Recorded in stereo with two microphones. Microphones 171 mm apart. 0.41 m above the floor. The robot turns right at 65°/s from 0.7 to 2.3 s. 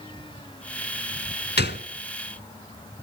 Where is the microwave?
No microwave in this recording.